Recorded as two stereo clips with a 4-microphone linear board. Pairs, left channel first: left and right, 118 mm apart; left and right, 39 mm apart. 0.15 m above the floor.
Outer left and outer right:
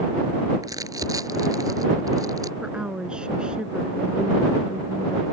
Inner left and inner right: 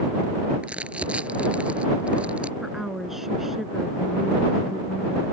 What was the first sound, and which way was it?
Crumpling, 35° right (ahead or behind).